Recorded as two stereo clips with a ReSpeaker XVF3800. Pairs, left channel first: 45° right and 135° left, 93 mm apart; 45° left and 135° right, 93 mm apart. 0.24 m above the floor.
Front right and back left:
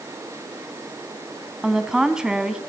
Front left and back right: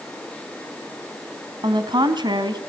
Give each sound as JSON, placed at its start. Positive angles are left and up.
{"t": 1.6, "sound": "a woman speaking", "azimuth_deg": -145, "distance_m": 2.0}